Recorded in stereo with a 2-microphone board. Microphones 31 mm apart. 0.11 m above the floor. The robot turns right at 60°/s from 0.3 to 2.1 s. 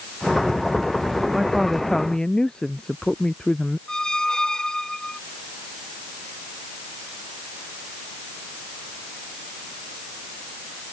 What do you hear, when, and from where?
1.3 s a woman speaking: 20° right; by 3.8 s 25° left
3.9 s a squeak: 20° left (ahead or behind)